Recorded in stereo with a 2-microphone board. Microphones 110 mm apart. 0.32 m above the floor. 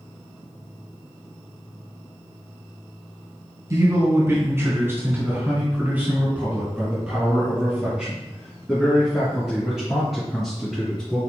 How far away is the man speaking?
About 3 m.